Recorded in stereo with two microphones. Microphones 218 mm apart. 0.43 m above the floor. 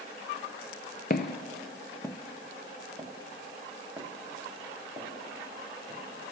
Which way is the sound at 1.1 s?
45° left (ahead or behind).